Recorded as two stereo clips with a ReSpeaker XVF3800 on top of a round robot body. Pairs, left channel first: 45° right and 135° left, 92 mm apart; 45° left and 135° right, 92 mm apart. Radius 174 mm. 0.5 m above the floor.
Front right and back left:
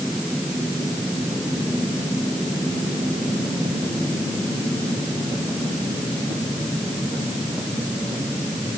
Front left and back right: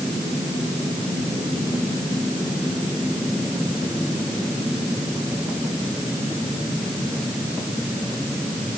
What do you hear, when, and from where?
Only background noise.